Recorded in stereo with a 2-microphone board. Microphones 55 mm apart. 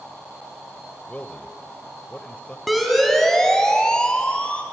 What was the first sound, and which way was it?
A man speaking, 25° left (ahead or behind).